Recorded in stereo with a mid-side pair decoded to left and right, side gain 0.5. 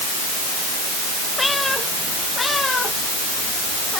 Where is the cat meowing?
15° left; by 4.0 s 30° left.